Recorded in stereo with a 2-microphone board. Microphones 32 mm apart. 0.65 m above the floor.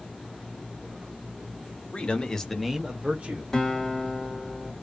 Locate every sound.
1.9 s a man speaking: 35° left (ahead or behind), 0.9 m; by 3.4 s 50° right (ahead or behind), 0.9 m
3.5 s a guitar: 15° left (ahead or behind), 1.6 m